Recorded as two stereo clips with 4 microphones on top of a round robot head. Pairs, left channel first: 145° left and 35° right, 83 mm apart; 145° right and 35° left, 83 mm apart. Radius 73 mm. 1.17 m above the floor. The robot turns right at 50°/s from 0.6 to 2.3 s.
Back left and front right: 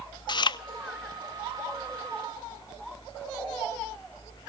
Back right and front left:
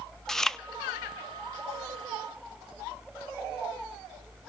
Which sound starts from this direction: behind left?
Chewing, at 0.3 s.